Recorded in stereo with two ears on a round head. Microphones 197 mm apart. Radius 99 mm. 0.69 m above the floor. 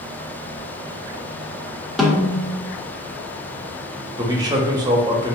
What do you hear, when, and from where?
2.0 s a snare drum: centre (ahead or behind), 0.9 m
4.2 s a man speaking: 20° right (ahead or behind), 0.7 m